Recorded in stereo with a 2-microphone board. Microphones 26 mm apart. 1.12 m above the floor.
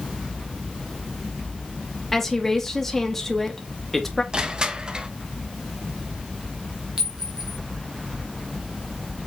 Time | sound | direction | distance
2.1 | a woman speaking | 10° left (ahead or behind) | 1.8 m
4.3 | crushing | 35° right (ahead or behind) | 0.9 m
7.0 | a clink | 25° right (ahead or behind) | 1.8 m